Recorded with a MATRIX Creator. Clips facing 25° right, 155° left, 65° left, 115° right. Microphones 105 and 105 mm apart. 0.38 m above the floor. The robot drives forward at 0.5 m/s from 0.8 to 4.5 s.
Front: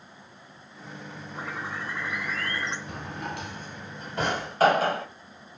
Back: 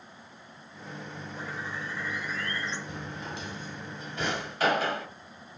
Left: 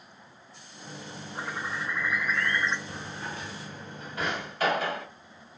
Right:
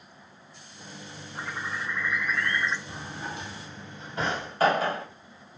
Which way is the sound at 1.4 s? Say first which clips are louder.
Front 3 dB, even; 15° right.